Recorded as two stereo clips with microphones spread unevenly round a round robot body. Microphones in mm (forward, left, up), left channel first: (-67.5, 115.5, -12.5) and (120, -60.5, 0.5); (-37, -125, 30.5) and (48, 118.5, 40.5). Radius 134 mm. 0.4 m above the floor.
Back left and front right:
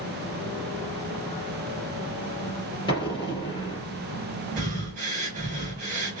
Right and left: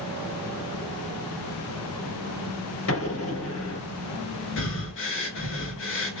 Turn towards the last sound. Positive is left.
turn(degrees=-100)